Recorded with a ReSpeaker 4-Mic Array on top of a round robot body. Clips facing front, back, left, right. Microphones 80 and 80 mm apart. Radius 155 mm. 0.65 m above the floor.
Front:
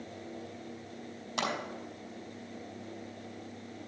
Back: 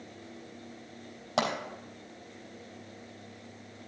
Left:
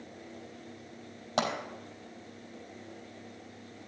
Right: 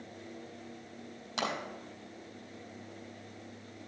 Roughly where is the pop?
Behind left.